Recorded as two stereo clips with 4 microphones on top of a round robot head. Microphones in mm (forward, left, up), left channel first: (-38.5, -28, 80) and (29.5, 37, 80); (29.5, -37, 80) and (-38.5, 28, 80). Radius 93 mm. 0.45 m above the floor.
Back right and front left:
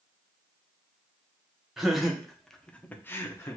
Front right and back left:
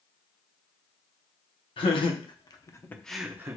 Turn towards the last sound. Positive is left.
turn(degrees=175)